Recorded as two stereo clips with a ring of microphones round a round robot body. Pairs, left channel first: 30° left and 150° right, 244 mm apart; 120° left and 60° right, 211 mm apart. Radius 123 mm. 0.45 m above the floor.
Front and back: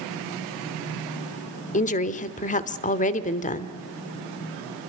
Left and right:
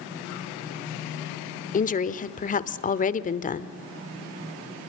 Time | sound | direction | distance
1.7 | a woman speaking | 80° left | 1.1 m